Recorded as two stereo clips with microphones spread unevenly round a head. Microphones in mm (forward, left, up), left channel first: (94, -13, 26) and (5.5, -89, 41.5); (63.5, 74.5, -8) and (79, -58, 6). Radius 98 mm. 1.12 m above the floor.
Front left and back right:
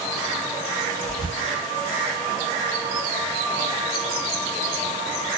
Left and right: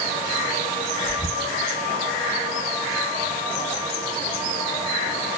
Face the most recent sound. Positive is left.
turn(degrees=170)